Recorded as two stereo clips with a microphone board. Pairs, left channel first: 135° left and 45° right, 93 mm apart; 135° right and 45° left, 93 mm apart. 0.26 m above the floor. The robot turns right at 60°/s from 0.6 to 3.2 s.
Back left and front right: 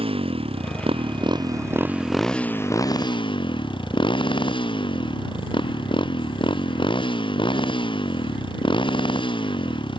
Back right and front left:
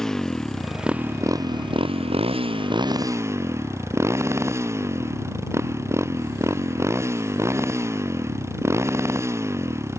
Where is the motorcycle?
50° right; by 10.0 s 105° left.